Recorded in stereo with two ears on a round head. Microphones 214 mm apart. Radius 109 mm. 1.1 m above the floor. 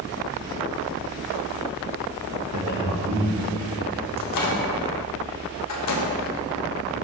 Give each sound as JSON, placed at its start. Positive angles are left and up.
{"t": 2.5, "sound": "a man speaking", "side_deg": -65, "distance_m": 1.4}
{"t": 4.2, "sound": "a microwave", "side_deg": 75, "distance_m": 1.2}